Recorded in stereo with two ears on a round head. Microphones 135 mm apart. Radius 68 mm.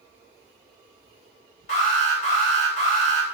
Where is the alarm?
50° left (ahead or behind), 1.8 m.